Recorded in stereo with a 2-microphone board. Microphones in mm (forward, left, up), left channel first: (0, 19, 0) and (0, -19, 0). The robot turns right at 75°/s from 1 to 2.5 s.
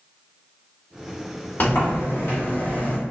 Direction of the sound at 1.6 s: 55° left.